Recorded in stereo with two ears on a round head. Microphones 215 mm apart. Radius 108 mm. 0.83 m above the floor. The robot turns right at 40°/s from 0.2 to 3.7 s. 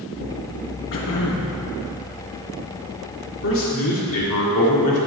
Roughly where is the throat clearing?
Left.